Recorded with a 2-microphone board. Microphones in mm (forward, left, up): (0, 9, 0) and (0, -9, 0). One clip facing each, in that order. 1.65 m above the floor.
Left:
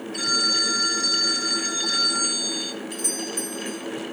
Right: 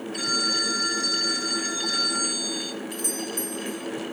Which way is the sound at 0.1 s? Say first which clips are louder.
Left 3 dB; 10° left (ahead or behind).